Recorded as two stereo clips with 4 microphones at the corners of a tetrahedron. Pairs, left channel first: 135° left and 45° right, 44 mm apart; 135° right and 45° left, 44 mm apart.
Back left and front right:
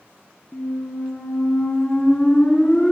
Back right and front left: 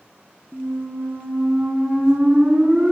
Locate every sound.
0.5 s a squeak: 90° left, 0.7 m